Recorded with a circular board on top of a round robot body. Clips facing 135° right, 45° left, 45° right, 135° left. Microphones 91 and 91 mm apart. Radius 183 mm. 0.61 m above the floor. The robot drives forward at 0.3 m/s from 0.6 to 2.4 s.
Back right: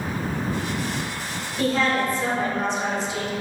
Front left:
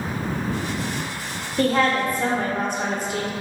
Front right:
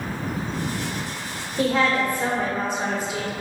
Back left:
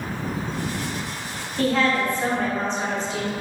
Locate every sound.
1.6 s a woman speaking: 25° left, 1.0 m; by 3.3 s 35° left, 0.8 m